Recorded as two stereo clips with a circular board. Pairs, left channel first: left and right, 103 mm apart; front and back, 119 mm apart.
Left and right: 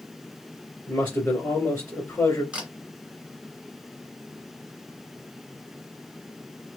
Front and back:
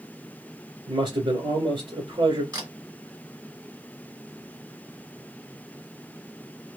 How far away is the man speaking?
About 1.6 m.